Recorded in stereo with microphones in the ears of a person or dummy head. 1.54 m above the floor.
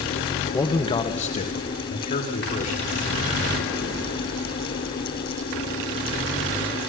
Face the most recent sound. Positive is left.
turn(degrees=50)  # may be behind; listen again after turning